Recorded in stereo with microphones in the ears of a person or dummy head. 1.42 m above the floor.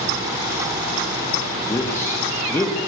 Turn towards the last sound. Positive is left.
turn(degrees=15)  # may be behind; listen again after turning